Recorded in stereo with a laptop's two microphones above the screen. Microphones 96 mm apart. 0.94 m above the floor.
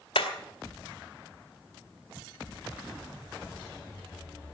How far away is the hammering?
About 2.5 m.